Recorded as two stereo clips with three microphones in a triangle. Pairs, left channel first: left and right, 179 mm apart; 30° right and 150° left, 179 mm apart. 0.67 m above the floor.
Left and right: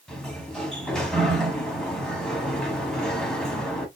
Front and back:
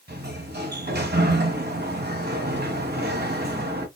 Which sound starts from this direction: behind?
A sliding door, at 0.1 s.